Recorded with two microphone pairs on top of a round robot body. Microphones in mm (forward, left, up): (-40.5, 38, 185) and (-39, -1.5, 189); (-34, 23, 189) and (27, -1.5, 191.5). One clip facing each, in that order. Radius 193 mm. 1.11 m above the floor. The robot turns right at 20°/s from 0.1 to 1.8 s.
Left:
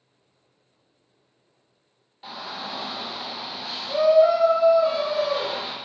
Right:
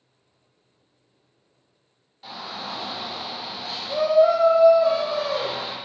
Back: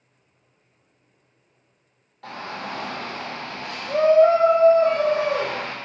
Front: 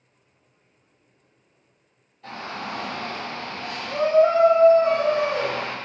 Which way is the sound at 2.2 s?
165° left.